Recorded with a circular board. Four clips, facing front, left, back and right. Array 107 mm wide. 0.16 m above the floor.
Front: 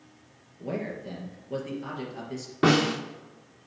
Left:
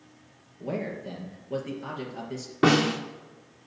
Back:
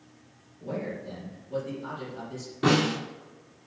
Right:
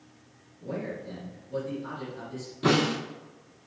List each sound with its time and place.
0.6 s a man speaking: 50° left, 3 m
2.6 s a snare drum: 60° left, 3 m